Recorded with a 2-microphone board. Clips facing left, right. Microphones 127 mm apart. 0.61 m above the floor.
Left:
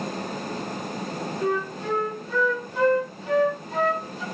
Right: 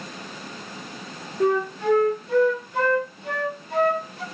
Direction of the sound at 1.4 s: 65° right (ahead or behind).